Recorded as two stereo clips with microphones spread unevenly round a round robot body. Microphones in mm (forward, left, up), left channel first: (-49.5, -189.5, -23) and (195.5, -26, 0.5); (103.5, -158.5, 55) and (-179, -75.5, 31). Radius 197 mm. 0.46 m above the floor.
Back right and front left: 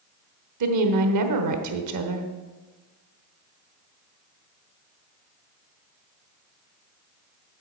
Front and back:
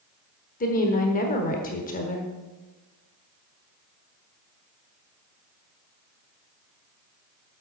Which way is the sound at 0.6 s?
50° left.